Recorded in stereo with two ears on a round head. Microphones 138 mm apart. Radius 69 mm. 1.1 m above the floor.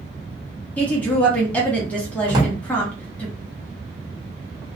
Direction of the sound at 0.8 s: 10° left (ahead or behind).